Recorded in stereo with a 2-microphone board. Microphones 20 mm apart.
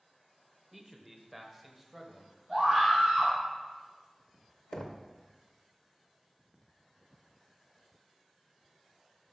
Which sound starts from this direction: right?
A scream, at 2.5 s.